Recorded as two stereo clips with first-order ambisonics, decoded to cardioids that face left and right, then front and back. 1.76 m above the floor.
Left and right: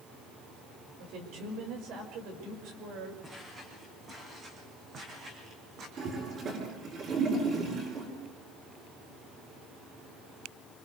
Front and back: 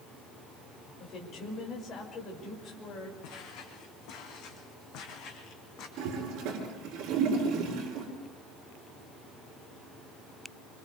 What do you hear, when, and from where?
1.0 s a woman speaking: 55° right, 5.5 m
3.2 s footsteps: 15° right, 5.5 m; by 5.9 s 40° right, 4.5 m
6.0 s a toilet flushing: 150° right, 7.5 m